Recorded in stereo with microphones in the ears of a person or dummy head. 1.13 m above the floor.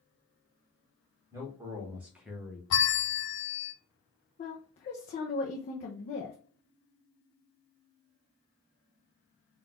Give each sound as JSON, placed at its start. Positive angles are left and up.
{"t": 1.3, "sound": "a man speaking", "side_deg": -10, "distance_m": 1.9}
{"t": 2.7, "sound": "a bell", "side_deg": 80, "distance_m": 0.8}
{"t": 4.4, "sound": "a woman speaking", "side_deg": 35, "distance_m": 0.7}